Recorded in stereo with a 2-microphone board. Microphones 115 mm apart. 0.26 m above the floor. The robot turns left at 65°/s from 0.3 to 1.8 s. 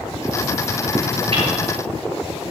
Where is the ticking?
50° right (ahead or behind), 4.5 m; by 1.4 s 45° right (ahead or behind), 4.5 m.